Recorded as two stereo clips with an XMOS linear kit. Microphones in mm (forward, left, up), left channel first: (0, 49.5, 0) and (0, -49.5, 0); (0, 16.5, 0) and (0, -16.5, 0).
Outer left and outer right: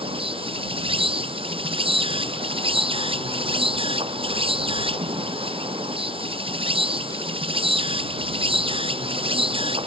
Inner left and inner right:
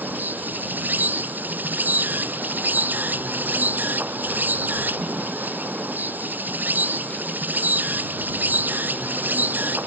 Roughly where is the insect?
Right.